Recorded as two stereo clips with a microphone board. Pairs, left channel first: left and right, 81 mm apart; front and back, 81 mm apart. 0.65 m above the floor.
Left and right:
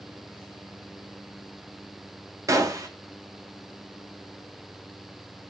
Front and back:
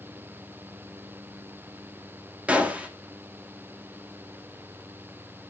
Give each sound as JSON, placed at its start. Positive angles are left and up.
{"t": 2.5, "sound": "a gunshot", "azimuth_deg": -115, "distance_m": 1.4}